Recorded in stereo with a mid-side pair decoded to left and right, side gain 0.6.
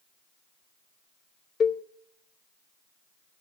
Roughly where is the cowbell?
Ahead left.